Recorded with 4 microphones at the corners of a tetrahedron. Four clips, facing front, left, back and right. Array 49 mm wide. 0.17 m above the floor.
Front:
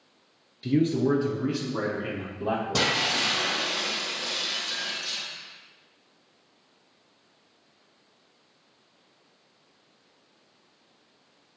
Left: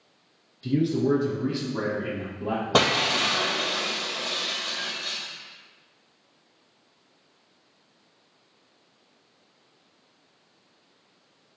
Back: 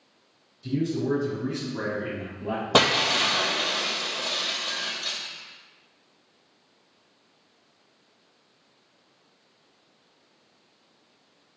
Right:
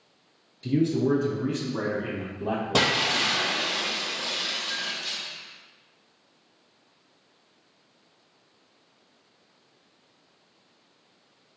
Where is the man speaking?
10° right, 2.5 m; by 3.1 s 25° right, 5.5 m.